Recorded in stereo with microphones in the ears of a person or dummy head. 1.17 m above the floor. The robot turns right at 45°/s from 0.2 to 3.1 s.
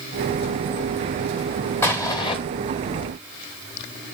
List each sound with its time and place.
1.8 s an explosion: 10° left (ahead or behind), 1.1 m; by 2.4 s 25° left (ahead or behind), 1.1 m